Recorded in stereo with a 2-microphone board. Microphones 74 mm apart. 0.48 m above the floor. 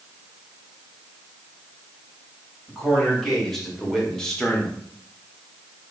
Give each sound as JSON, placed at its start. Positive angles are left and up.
{"t": 2.7, "sound": "a man speaking", "side_deg": 0, "distance_m": 2.5}